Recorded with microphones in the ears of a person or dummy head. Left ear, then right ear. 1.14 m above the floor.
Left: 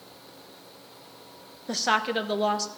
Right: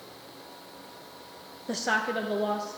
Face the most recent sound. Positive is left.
turn(degrees=60)  # may be behind; listen again after turning